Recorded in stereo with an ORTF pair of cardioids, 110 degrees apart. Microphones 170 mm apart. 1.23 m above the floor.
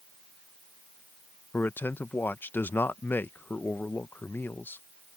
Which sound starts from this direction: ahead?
A man speaking, at 1.5 s.